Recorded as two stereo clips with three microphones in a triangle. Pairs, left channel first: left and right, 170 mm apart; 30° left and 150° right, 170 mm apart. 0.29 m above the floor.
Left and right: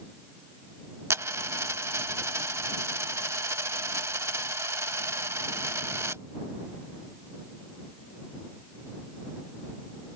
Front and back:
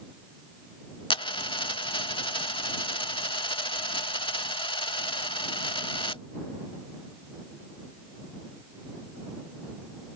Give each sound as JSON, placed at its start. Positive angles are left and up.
{"t": 1.1, "sound": "a dropped coin", "azimuth_deg": -20}